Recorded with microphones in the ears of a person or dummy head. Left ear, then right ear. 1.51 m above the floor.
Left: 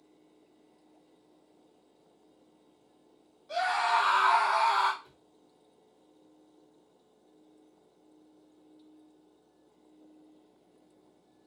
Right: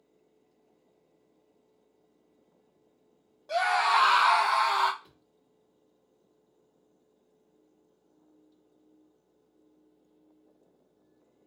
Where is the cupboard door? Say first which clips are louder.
Left 2 dB; 10° right (ahead or behind), 1.3 m.